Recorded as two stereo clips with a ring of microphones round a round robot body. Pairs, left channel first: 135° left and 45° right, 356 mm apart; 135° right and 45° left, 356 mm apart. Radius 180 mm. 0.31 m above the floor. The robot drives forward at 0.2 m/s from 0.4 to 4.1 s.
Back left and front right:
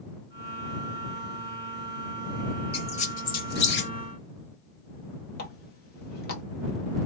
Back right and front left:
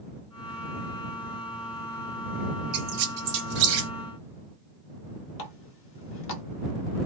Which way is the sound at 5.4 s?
175° right.